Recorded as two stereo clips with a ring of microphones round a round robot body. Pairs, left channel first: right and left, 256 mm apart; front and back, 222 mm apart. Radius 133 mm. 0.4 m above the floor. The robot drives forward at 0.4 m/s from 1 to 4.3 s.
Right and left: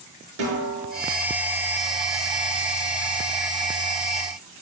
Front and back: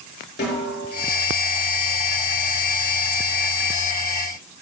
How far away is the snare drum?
About 5.5 m.